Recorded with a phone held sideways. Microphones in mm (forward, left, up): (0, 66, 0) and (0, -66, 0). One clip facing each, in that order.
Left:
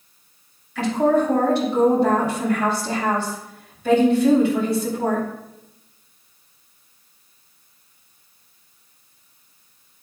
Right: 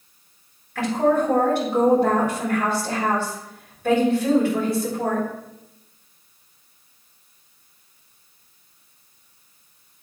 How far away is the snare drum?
No snare drum in this recording.